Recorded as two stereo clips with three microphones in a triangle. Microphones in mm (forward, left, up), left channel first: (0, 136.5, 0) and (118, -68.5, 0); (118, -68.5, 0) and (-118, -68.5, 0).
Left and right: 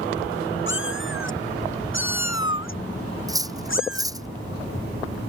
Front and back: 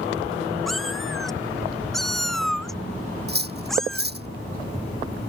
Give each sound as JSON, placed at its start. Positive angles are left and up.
{"t": 0.7, "sound": "a cat meowing", "azimuth_deg": 90}
{"t": 3.3, "sound": "cutlery clinking", "azimuth_deg": -135}